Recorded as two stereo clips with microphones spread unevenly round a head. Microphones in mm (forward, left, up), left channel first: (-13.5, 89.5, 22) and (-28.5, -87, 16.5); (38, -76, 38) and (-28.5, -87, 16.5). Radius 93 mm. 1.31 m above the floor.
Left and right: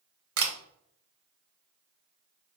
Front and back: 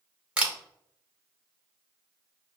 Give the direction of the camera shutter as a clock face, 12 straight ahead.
3 o'clock.